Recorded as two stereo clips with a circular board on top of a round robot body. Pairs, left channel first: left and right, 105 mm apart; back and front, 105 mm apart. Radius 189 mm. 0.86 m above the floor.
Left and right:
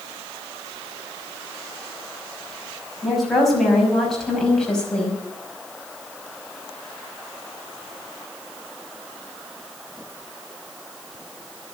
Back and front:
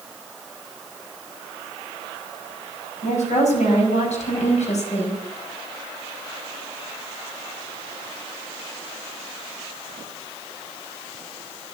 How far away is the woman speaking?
About 6 m.